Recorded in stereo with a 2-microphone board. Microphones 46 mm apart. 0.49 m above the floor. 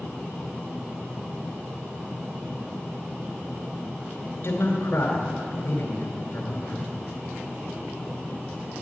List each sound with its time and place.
4.4 s a man speaking: 55° left (ahead or behind), 2.5 m